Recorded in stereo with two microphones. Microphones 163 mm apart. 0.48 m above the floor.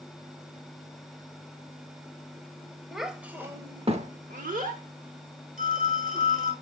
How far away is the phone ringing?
About 3 m.